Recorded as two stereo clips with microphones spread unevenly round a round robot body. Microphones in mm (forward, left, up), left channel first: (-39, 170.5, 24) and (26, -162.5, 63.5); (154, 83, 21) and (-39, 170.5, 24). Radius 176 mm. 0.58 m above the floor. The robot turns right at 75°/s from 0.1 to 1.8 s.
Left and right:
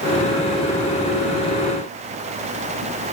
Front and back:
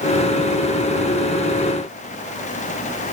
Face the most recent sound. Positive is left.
No sound to turn to.